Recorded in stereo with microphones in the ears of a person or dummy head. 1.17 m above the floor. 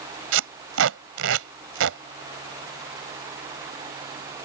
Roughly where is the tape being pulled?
Right.